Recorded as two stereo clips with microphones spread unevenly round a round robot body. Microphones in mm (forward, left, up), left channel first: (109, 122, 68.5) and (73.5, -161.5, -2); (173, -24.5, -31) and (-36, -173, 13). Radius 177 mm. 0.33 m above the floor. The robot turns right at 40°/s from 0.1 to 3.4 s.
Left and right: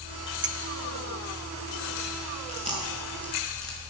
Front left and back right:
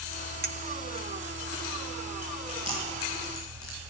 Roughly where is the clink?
Right.